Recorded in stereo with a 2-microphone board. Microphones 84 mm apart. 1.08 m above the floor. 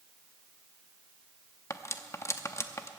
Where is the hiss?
I don't hear a hiss.